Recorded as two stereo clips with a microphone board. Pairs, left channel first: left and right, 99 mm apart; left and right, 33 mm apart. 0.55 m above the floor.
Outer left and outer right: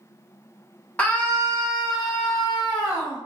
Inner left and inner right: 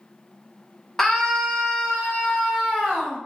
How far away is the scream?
About 0.7 m.